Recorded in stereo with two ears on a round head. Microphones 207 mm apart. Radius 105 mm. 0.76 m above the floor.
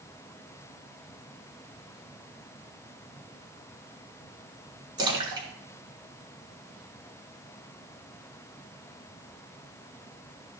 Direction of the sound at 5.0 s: 20° right (ahead or behind).